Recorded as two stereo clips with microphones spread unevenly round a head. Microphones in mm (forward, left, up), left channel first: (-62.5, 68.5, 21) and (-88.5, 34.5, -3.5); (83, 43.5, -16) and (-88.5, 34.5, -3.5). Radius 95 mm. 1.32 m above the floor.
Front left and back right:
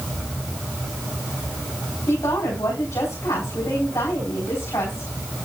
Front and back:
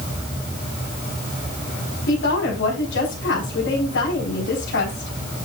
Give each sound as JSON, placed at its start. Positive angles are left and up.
{"t": 2.1, "sound": "a woman speaking", "azimuth_deg": 15, "distance_m": 4.5}